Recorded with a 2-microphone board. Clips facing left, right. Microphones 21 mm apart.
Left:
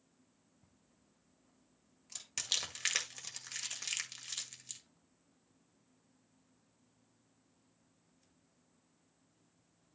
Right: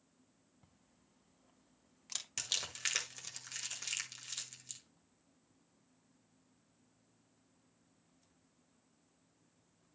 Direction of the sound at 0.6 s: 35° right (ahead or behind).